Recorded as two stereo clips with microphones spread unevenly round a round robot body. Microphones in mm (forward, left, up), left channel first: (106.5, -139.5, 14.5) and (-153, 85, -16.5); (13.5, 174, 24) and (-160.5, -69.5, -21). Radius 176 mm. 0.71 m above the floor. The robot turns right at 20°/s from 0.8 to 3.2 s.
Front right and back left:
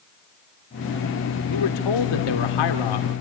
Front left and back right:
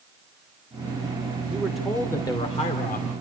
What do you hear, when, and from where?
1.5 s a man speaking: 45° right, 2.5 m; by 3.1 s 15° right, 2.5 m